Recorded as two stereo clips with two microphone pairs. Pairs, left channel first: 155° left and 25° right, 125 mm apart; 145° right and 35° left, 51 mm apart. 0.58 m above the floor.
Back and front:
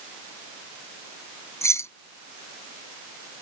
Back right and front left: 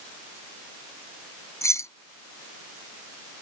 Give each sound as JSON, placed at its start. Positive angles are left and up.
{"t": 1.6, "sound": "keys jangling", "azimuth_deg": -140}